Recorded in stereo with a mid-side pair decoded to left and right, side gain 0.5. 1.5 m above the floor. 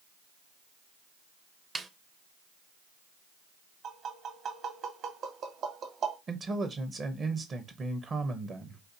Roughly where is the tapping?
Ahead right.